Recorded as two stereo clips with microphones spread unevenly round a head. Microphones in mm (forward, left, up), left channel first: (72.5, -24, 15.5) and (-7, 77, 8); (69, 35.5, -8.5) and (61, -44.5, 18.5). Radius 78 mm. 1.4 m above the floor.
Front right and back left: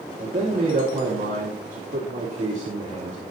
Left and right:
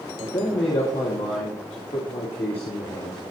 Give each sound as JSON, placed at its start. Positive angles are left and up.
{"t": 0.2, "sound": "a man speaking", "azimuth_deg": 95, "distance_m": 2.5}